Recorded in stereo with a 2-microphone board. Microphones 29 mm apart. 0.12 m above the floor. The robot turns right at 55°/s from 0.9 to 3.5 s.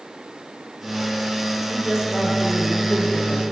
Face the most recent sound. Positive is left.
turn(degrees=60)